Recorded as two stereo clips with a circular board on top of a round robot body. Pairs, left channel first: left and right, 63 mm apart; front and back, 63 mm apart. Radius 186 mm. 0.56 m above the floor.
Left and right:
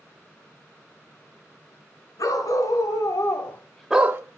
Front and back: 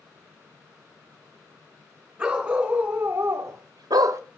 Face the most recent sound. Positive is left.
turn(degrees=-140)